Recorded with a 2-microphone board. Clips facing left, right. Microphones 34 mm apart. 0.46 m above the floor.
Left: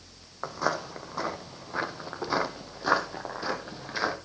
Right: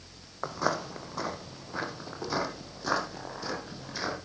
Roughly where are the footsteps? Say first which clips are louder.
Left 1 dB; centre.